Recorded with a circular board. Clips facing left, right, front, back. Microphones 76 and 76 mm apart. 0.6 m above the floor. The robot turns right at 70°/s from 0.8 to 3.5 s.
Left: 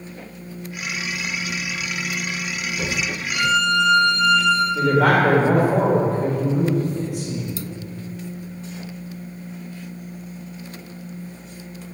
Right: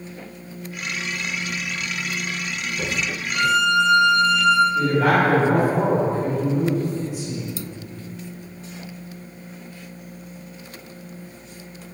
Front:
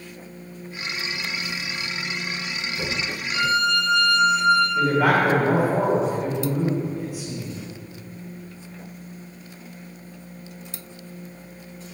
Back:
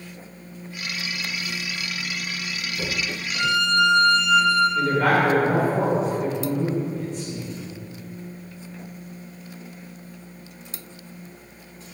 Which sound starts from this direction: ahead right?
A violin, at 3.3 s.